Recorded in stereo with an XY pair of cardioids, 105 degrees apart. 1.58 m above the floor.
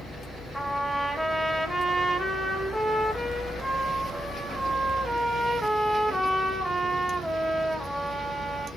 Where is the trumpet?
5° left, 2.5 m.